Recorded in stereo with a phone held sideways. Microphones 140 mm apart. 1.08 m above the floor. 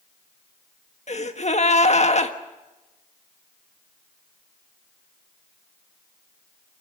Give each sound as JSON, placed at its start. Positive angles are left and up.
{"t": 1.1, "sound": "a gasp", "side_deg": 55, "distance_m": 1.5}